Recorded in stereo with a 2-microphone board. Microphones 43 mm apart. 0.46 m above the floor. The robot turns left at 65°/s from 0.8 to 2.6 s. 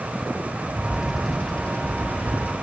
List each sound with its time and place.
0.7 s a bird: 150° right, 2 m; by 2.5 s 95° left, 2 m